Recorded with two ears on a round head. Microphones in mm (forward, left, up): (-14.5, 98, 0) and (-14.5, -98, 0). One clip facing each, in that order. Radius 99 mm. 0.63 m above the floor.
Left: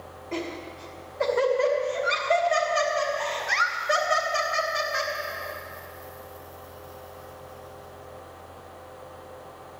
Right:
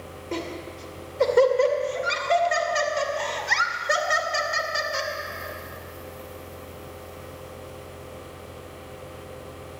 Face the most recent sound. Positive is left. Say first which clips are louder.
# right 1 dB
turn(degrees=-55)  # may be behind; listen again after turning